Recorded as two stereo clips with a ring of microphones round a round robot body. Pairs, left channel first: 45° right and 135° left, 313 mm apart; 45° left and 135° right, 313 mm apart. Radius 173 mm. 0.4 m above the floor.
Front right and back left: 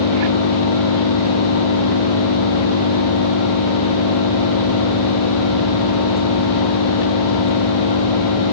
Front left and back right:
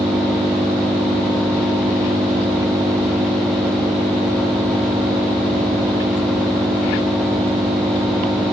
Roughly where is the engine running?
Ahead right.